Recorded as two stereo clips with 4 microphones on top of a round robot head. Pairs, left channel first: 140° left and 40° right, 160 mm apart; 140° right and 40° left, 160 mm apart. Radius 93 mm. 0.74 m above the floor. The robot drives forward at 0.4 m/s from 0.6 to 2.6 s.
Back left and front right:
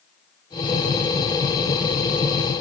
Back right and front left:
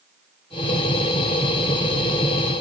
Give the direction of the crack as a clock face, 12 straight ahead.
No crack in this recording.